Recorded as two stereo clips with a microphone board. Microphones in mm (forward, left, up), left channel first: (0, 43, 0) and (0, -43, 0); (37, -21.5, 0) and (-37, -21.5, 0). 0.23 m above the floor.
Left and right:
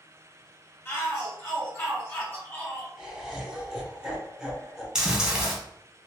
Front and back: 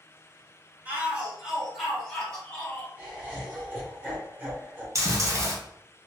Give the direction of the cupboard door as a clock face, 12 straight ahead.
I don't hear a cupboard door.